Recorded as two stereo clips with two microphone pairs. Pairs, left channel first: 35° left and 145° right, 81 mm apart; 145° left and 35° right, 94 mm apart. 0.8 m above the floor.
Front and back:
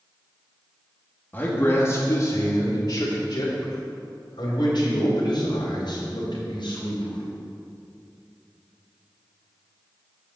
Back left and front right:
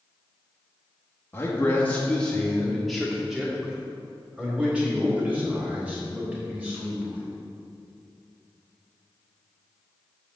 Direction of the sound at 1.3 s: 90° left.